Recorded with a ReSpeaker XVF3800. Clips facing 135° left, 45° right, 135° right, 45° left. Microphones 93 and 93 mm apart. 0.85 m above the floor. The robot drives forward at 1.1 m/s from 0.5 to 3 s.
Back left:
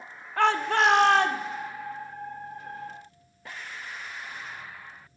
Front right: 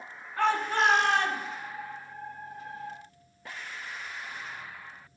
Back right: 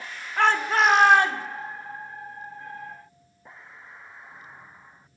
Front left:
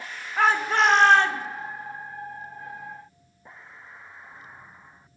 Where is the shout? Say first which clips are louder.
Back left 3 dB, even; 130° left, 1.5 m; by 1.4 s 150° left, 2 m.